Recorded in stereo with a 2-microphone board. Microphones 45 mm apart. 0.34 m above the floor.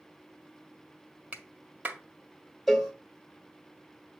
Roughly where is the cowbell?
Centre.